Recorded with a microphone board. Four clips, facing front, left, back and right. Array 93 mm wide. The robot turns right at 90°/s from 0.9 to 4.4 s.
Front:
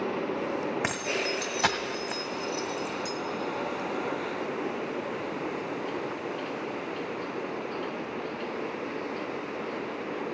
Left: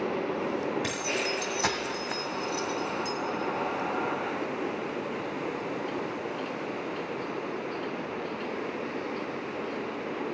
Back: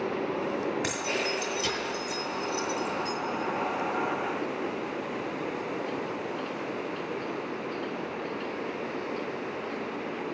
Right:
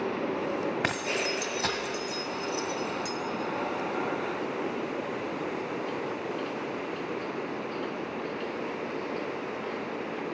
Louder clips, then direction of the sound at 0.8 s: Right 1 dB, even; 60° right.